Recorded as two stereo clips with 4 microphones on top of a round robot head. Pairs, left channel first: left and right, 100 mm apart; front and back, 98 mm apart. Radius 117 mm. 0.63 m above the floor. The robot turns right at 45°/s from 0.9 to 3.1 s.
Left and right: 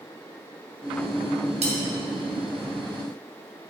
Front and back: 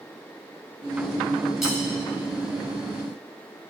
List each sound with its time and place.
1.6 s cutlery clinking: 95° right, 4 m; by 1.8 s 85° right, 4 m